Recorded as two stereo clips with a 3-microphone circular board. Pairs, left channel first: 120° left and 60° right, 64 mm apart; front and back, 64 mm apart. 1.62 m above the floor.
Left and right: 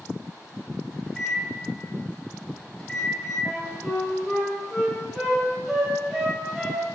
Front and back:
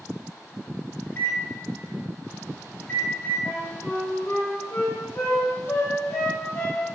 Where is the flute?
25° left, 1.3 m.